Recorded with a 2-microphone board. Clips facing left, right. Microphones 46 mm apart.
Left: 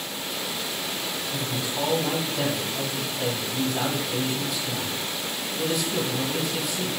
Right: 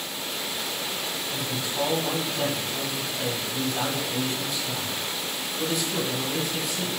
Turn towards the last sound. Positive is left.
turn(degrees=0)  # may be behind; listen again after turning